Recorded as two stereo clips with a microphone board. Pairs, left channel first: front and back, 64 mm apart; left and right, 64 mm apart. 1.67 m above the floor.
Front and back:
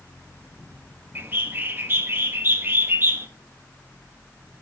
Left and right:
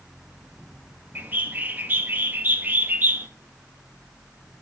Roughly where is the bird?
Behind right.